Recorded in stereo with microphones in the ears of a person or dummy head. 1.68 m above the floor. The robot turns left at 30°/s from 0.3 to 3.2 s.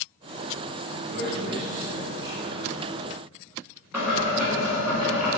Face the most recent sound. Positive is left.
turn(degrees=-10)  # may be behind; listen again after turning